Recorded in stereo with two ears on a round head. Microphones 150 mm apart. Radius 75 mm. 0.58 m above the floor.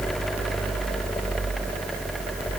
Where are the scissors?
I don't hear scissors.